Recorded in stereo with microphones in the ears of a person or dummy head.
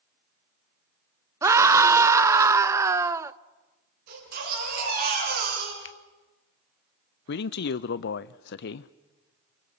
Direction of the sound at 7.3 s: 60° left (ahead or behind).